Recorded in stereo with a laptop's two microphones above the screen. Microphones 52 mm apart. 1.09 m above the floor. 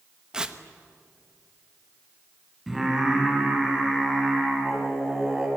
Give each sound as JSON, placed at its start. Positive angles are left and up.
{"t": 0.3, "sound": "tearing paper", "side_deg": -15, "distance_m": 0.9}
{"t": 2.7, "sound": "singing", "side_deg": -5, "distance_m": 7.5}